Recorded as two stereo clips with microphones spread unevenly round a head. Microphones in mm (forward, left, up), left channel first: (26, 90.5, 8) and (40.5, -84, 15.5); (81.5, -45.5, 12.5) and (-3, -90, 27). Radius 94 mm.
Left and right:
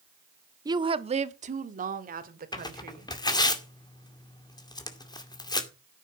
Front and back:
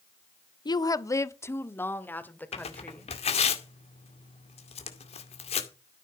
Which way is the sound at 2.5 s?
30° left.